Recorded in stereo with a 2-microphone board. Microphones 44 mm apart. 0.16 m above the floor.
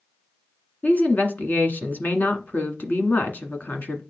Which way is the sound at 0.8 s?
45° left (ahead or behind).